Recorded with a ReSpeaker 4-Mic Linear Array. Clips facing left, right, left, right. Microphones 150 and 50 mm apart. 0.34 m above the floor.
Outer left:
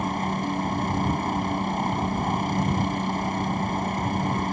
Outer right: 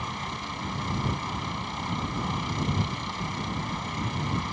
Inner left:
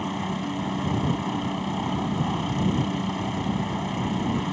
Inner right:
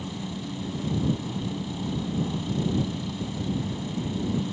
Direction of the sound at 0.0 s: 50° left (ahead or behind).